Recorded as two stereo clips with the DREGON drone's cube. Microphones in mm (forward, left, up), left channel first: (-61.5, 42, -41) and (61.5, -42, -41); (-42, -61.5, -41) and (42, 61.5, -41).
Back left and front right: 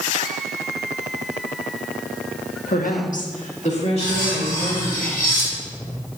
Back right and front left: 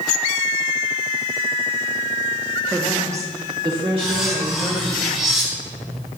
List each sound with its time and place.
2.7 s a woman speaking: 150° left, 1.2 m; by 5.0 s 95° left, 4 m
4.0 s cutlery clinking: 145° left, 4 m